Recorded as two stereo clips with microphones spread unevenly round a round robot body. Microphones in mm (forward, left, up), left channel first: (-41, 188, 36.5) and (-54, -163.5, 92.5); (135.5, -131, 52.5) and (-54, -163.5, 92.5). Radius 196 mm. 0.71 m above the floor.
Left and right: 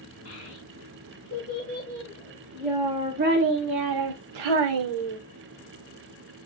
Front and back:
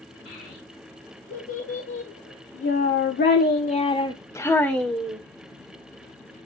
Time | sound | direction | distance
0.2 | a child speaking | 30° left | 3 m